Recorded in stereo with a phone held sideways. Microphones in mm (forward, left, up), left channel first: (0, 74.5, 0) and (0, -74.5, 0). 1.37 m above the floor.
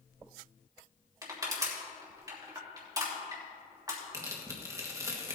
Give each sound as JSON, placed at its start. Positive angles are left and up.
{"t": 1.2, "sound": "crushing", "side_deg": -25, "distance_m": 3.0}
{"t": 4.1, "sound": "tearing paper", "side_deg": -20, "distance_m": 1.6}